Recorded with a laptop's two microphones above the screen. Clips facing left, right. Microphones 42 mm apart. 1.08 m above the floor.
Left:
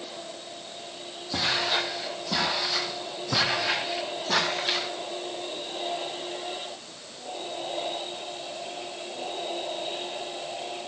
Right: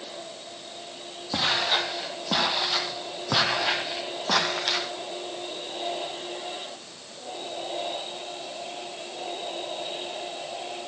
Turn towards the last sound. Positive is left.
turn(degrees=-70)  # may be behind; listen again after turning